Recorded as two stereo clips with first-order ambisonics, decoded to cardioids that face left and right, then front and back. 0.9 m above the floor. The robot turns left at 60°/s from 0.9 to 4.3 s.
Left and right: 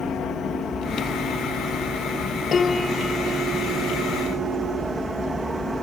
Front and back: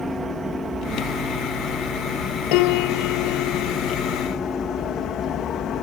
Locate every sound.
0.0 s an aircraft: 110° left; by 5.8 s 10° right
2.5 s a piano: 25° left; by 4.8 s 85° right